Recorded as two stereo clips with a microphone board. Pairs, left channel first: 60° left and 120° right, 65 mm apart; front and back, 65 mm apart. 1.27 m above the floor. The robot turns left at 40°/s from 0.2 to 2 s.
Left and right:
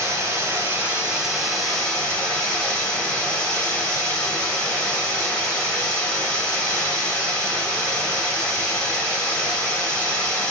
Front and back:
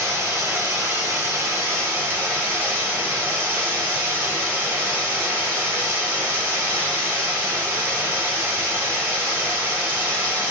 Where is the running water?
160° right, 1.6 m; by 10.5 s 130° left, 1.6 m.